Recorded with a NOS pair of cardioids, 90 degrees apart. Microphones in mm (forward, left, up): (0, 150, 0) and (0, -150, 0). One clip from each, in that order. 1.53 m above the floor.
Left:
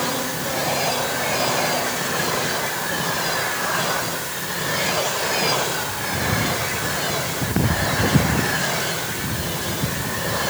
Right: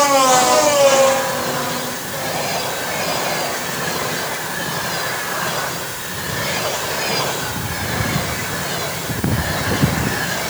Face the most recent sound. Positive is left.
No sound to turn to.